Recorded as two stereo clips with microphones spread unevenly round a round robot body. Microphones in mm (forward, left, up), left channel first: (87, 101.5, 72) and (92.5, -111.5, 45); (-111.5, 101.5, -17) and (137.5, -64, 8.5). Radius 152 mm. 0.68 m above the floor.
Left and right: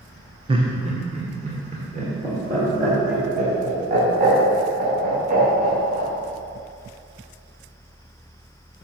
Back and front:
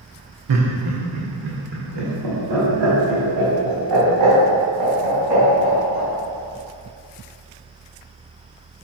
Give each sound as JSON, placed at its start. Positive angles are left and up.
{"t": 0.5, "sound": "laughter", "azimuth_deg": -30, "distance_m": 1.1}